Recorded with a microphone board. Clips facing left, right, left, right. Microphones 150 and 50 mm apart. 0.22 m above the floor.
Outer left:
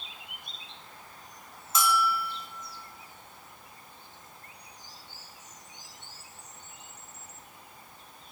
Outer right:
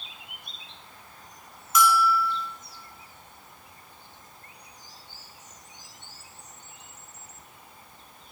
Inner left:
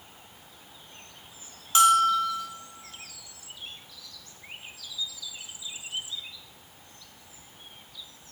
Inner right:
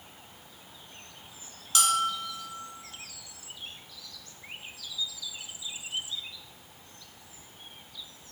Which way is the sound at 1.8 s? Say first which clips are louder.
Outer right 5 dB, inner left 8 dB; 30° left (ahead or behind).